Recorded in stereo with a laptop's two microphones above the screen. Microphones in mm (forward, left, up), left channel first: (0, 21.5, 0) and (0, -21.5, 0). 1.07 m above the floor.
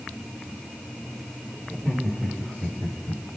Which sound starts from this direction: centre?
Laughter, at 1.7 s.